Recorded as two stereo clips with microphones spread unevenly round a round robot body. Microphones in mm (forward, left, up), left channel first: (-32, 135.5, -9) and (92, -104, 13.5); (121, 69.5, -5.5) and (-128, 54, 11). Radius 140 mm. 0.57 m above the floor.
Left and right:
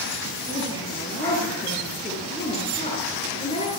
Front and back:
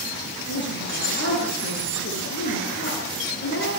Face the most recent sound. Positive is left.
turn(degrees=45)